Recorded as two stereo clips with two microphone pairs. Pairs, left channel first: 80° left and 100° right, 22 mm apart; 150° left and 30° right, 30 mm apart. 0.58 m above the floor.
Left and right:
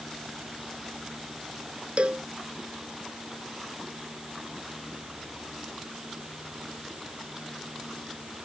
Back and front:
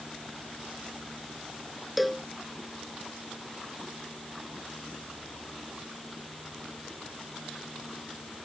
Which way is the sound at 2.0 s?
120° right.